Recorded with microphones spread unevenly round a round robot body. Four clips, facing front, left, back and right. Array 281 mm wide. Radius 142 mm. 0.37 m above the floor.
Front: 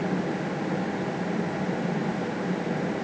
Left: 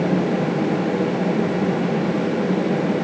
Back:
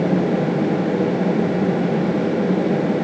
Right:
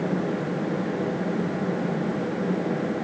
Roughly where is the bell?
I don't hear a bell.